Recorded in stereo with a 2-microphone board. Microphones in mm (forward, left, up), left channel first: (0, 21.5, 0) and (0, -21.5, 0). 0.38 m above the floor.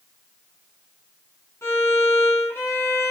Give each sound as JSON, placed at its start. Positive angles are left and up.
{"t": 1.6, "sound": "a violin", "side_deg": 70, "distance_m": 3.5}